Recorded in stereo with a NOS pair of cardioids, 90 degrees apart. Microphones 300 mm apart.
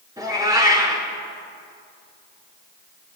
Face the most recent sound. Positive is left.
turn(degrees=-15)